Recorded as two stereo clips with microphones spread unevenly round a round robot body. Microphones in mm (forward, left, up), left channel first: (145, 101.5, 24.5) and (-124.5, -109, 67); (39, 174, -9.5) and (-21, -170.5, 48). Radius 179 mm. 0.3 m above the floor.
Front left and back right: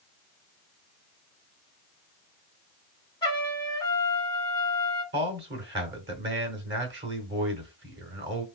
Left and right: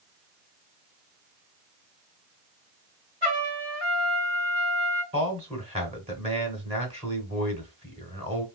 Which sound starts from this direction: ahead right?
A trumpet, at 3.2 s.